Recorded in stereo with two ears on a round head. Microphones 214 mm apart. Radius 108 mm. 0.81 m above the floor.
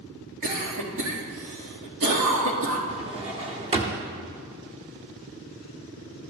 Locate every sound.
0.4 s a cough: 60° right (ahead or behind), 1.9 m
2.9 s a drawer: 25° right (ahead or behind), 0.8 m